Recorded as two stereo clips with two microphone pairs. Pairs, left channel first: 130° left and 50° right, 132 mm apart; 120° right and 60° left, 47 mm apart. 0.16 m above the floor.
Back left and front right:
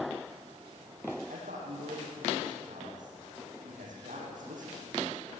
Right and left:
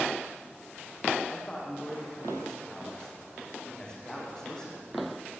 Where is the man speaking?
45° right, 9 m.